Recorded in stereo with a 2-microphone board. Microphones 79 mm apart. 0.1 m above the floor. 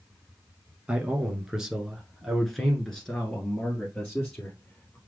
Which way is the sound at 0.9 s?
15° right (ahead or behind).